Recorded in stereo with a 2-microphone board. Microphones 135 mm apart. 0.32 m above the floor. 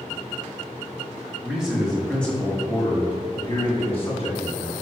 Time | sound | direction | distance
1.4 | a man speaking | 5° right (ahead or behind) | 2.5 m